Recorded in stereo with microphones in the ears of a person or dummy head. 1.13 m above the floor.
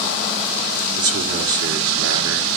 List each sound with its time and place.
1.0 s a man speaking: 80° right, 2.5 m